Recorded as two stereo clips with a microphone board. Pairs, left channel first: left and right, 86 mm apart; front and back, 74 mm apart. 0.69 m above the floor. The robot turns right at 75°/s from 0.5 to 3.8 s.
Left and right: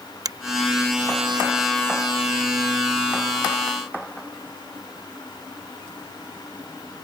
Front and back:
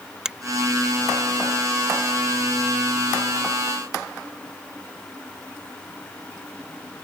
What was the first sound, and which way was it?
A finger snap, 105° right.